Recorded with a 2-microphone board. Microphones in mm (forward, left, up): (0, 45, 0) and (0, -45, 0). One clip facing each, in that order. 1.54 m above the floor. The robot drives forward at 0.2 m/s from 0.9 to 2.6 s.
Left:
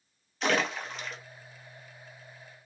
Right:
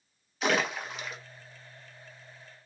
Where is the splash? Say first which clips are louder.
Even; 5° right (ahead or behind), 0.8 m.